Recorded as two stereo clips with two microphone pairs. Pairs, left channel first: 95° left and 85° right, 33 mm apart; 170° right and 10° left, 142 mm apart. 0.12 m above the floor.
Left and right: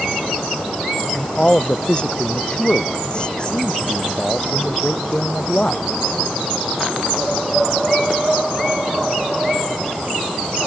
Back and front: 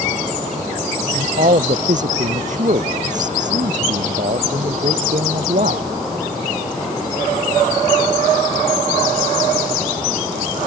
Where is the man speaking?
35° left.